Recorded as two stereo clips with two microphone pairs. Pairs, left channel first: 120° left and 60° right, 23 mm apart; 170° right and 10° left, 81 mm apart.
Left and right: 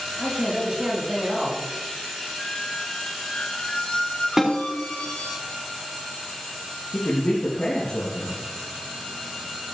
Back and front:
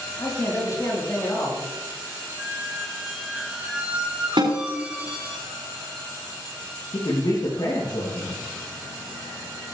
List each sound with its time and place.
0.2 s a man speaking: 115° right, 6.5 m
2.4 s a squeak: 85° left, 3 m
4.4 s a snare drum: 15° left, 5.5 m
6.9 s a man speaking: 170° left, 4.5 m